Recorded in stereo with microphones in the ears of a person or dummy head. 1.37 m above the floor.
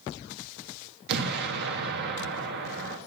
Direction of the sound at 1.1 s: 60° right (ahead or behind).